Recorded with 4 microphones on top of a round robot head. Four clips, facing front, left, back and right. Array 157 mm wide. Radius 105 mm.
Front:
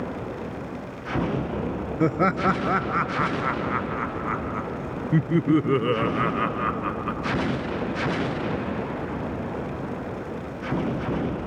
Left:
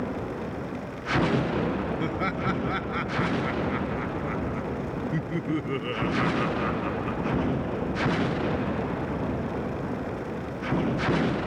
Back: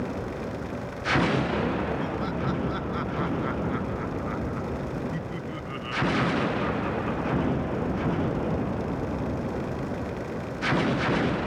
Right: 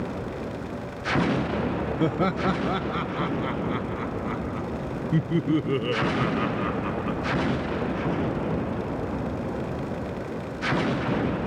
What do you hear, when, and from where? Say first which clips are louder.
2.0 s laughter: right 4 dB, front 8 dB; 30° right; by 7.4 s 10° right